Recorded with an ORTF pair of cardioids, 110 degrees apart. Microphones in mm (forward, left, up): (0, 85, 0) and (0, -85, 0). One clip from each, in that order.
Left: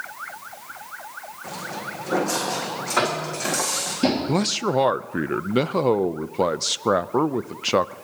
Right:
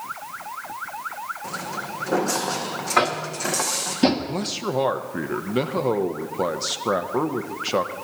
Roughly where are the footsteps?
Ahead.